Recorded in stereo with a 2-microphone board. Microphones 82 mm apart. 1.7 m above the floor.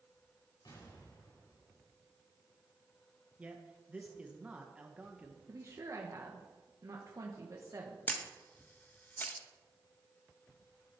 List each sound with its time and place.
0.7 s an explosion: 65° left (ahead or behind), 6 m
3.4 s a man speaking: 15° right (ahead or behind), 1.4 m
5.5 s a woman speaking: 40° right (ahead or behind), 1.8 m
8.1 s a camera shutter: 25° left (ahead or behind), 1.2 m